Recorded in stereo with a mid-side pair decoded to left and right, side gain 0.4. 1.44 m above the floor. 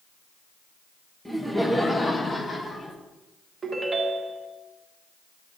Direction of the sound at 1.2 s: Straight ahead.